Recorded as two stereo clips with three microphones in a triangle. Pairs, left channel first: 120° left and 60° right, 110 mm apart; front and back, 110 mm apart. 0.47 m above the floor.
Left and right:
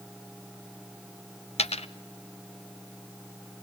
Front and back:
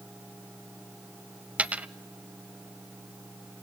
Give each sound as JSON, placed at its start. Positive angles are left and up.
{"t": 1.6, "sound": "a dropped coin", "azimuth_deg": 100, "distance_m": 0.6}